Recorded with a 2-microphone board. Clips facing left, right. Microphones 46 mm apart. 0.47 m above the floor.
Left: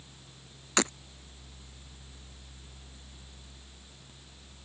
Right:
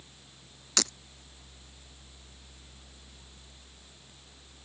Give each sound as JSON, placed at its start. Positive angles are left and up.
{"t": 0.8, "sound": "breaking glass", "side_deg": 25}